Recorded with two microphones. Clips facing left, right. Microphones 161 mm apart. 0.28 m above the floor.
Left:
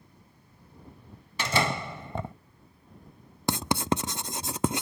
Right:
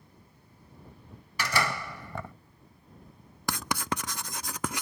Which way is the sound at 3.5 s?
25° left (ahead or behind).